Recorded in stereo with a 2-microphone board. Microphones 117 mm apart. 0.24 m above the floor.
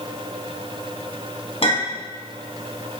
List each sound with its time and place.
1.6 s a clink: 55° left (ahead or behind), 1.2 m